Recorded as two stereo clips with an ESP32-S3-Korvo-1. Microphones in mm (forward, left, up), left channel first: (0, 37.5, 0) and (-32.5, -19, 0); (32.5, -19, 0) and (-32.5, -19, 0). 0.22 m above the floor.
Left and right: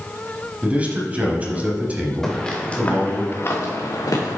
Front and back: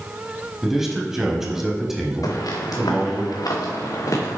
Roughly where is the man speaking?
Right.